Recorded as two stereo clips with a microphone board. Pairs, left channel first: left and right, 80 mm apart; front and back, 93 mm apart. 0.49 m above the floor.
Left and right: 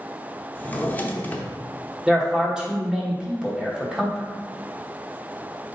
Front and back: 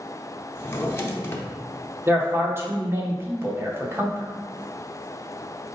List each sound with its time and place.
0.6 s a drawer: 40° left, 0.6 m
2.1 s a man speaking: 165° right, 1.0 m